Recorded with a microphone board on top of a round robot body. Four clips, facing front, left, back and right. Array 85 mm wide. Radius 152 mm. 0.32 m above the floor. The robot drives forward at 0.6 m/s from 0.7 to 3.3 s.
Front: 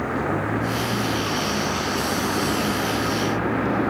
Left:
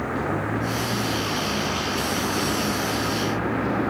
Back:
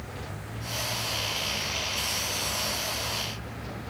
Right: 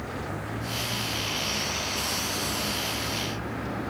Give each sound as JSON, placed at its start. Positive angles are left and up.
{"t": 0.0, "sound": "a vehicle", "azimuth_deg": 30}